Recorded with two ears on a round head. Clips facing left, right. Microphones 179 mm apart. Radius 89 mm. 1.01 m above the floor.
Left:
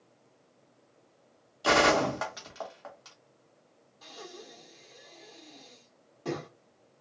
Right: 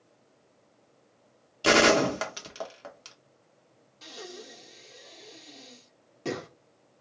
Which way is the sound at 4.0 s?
30° right (ahead or behind).